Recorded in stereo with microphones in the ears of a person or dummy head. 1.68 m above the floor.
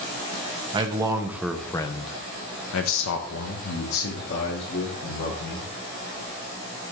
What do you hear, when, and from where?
0.7 s a man speaking: 25° right (ahead or behind), 0.9 m; by 5.7 s 70° left (ahead or behind), 2 m